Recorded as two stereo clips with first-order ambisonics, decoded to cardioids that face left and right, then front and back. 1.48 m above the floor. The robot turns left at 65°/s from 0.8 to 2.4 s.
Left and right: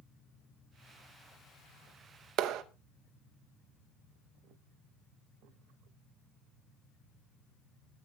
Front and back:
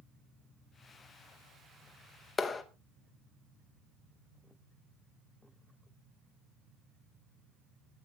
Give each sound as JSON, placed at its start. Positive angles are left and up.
{"t": 2.4, "sound": "a clap", "azimuth_deg": -70, "distance_m": 0.9}